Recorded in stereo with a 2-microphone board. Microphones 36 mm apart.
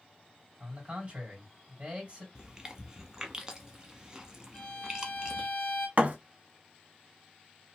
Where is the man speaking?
30° right (ahead or behind), 1.7 m.